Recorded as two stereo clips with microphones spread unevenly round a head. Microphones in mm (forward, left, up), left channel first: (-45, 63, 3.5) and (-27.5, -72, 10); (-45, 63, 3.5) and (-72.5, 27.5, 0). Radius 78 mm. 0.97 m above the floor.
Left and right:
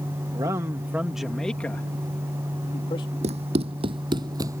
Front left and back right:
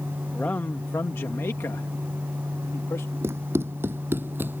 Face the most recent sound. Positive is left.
turn(degrees=-135)